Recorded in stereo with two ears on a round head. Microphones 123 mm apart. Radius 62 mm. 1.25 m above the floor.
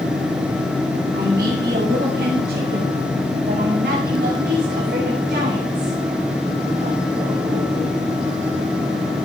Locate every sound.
1.1 s a man speaking: 85° right, 9 m; by 8.0 s 55° right (ahead or behind), 4.5 m